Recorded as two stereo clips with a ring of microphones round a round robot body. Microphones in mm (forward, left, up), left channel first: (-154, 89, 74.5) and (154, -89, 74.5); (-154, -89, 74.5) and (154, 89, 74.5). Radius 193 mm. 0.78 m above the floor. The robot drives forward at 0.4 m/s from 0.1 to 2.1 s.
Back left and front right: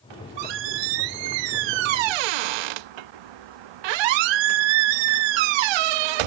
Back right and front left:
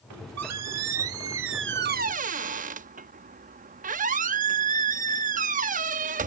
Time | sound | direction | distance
0.1 | a squeak | 15° right | ?